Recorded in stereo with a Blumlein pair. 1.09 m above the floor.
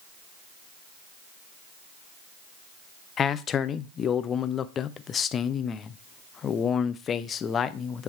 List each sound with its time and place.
3.2 s a man speaking: 25° left, 0.5 m